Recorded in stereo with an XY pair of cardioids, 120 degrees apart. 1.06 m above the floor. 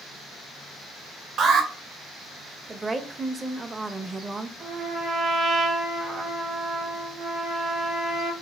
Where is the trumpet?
45° right, 1.4 m.